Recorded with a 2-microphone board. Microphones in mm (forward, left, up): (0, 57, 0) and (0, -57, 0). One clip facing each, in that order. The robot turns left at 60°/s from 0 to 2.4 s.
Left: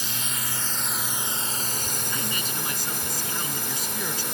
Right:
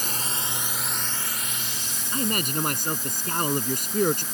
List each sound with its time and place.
0.0 s a drone: 130° right; by 4.3 s 90° left
2.1 s a man speaking: 35° right (ahead or behind); by 4.2 s 55° right (ahead or behind)